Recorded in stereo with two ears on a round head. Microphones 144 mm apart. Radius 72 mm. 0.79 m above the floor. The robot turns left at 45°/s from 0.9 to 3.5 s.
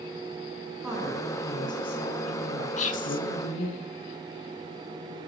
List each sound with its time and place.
0.8 s a woman speaking: 170° right, 8 m; by 3.8 s 70° left, 8 m
2.8 s whispering: 45° left (ahead or behind), 1.9 m; by 3.2 s 60° left (ahead or behind), 1.9 m